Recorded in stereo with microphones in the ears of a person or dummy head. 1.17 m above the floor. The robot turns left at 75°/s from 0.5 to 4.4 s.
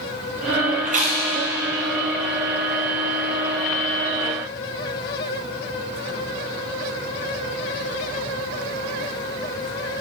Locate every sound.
0.8 s chewing: 45° right (ahead or behind), 0.8 m; by 1.2 s 20° right (ahead or behind), 0.8 m